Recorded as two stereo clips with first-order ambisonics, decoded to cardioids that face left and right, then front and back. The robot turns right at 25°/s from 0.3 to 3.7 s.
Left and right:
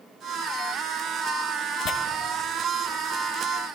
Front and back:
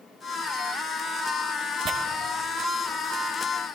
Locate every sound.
1.9 s tearing paper: 135° left, 0.7 m